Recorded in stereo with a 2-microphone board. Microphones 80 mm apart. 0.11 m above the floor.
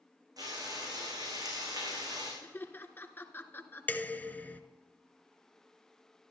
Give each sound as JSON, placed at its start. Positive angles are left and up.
{"t": 0.4, "sound": "frying", "side_deg": -50, "distance_m": 8.0}
{"t": 2.4, "sound": "laughter", "side_deg": 25, "distance_m": 1.2}
{"t": 3.9, "sound": "dishes clattering", "side_deg": 20, "distance_m": 0.8}